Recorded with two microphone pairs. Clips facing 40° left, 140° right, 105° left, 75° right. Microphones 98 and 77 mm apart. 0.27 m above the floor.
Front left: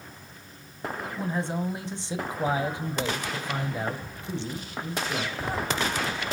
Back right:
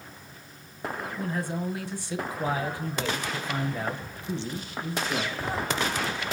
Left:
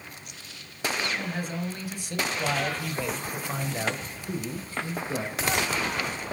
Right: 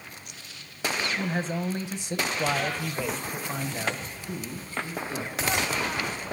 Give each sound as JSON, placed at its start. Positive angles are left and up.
{"t": 1.2, "sound": "a man speaking", "azimuth_deg": -20, "distance_m": 2.0}